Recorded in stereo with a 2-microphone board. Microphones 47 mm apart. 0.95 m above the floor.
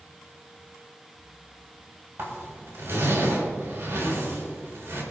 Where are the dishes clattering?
I don't hear dishes clattering.